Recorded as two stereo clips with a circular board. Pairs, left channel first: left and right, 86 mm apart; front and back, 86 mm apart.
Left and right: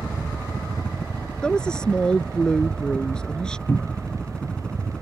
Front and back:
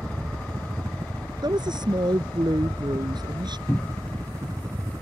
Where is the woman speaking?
170° left.